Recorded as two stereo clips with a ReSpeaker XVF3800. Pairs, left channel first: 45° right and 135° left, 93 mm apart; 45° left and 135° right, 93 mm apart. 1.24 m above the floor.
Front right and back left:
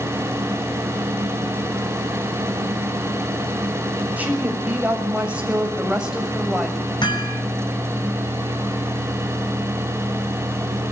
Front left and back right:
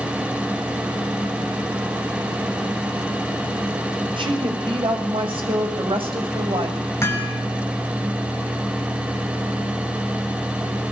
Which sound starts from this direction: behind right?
A woman speaking, at 4.2 s.